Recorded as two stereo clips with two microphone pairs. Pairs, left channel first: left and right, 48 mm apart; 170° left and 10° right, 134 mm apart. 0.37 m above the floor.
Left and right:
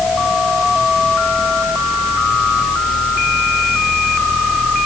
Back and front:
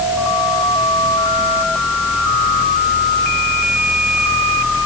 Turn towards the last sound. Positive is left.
No sound to turn to.